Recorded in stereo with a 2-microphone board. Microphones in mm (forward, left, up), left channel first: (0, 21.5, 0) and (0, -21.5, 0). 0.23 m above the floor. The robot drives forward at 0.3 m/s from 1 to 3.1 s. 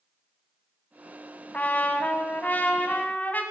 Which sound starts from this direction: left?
A trumpet, at 1.5 s.